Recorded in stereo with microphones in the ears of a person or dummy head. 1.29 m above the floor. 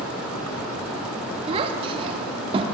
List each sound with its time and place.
1.5 s a child speaking: 35° right (ahead or behind), 1.2 m